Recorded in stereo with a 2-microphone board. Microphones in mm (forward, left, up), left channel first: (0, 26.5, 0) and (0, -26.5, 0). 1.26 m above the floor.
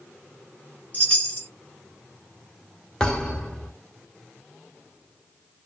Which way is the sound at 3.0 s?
15° left (ahead or behind).